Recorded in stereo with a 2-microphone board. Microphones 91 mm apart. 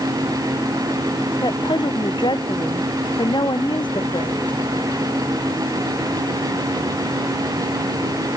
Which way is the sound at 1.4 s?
60° left (ahead or behind).